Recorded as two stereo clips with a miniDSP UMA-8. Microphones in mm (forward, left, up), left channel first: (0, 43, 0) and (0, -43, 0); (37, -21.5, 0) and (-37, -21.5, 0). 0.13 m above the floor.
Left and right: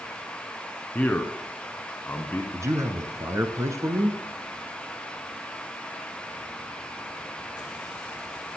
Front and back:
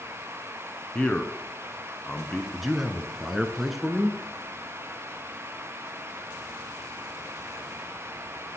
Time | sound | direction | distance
0.9 | a man speaking | 50° left | 1.4 m
2.5 | a man speaking | 95° right | 1.4 m